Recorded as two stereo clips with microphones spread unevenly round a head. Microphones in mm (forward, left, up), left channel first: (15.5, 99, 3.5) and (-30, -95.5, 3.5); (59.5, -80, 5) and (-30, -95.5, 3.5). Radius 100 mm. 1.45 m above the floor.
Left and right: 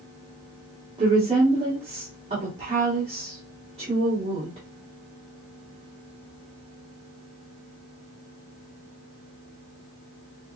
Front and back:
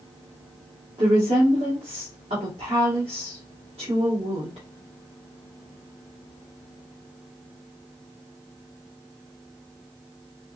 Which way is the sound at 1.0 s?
165° right.